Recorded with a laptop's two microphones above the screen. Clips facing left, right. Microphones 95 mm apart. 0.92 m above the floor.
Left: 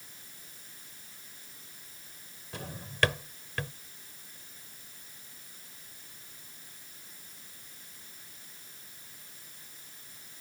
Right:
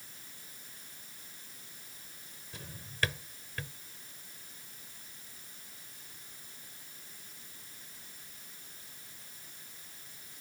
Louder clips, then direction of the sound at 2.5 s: Left 7 dB; 65° left (ahead or behind).